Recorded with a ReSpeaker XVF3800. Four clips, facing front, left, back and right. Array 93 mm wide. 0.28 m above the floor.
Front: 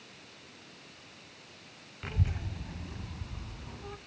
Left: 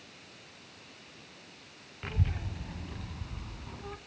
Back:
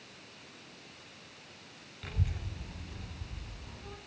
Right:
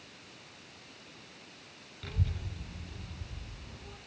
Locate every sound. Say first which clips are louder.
2.0 s a child speaking: left 3 dB, front 3 dB; 55° left, 0.8 m; by 4.0 s 65° left, 1.8 m